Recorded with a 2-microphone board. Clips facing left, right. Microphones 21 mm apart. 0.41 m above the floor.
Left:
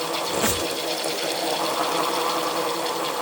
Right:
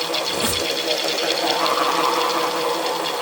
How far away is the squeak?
About 2.5 m.